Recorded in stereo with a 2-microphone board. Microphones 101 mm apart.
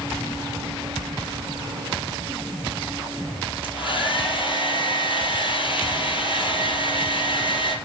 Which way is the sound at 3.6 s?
55° left (ahead or behind).